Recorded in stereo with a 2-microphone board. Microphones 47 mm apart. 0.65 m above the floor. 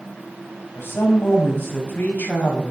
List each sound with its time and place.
0.8 s a woman speaking: 55° left (ahead or behind), 5 m; by 2.7 s 40° left (ahead or behind), 5 m